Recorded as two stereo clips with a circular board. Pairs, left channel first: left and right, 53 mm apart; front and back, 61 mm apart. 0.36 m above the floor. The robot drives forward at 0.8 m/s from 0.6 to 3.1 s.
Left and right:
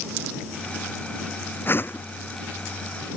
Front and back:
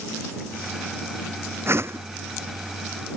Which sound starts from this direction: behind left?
A whoosh, at 1.7 s.